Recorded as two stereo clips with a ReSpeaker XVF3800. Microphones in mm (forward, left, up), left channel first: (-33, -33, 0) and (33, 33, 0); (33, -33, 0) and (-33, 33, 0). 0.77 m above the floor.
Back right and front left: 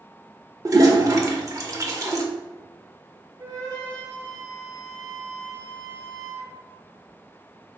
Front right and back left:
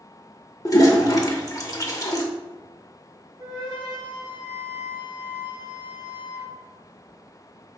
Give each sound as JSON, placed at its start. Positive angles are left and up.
{"t": 0.7, "sound": "a toilet flushing", "azimuth_deg": -5, "distance_m": 0.6}
{"t": 3.4, "sound": "a flute", "azimuth_deg": 90, "distance_m": 1.9}